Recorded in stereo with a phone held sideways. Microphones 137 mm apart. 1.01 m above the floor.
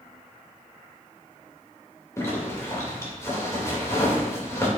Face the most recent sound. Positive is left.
turn(degrees=20)  # may be behind; listen again after turning